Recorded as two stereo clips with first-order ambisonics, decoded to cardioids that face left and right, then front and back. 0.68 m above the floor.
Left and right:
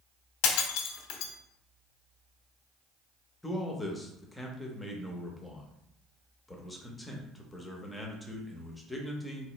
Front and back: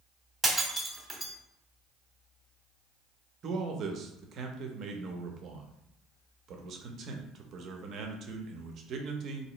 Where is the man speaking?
170° left, 0.6 m.